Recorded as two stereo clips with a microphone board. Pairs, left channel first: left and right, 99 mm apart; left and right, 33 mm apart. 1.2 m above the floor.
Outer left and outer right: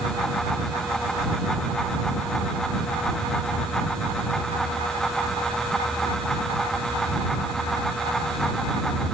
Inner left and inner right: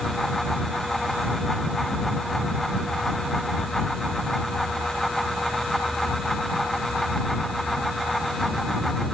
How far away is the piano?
No piano in this recording.